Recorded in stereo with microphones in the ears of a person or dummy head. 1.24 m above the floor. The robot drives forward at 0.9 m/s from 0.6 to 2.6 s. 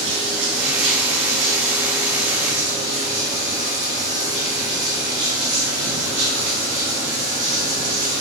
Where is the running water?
70° right (ahead or behind), 3 m; by 8.2 s 65° right (ahead or behind), 3.5 m.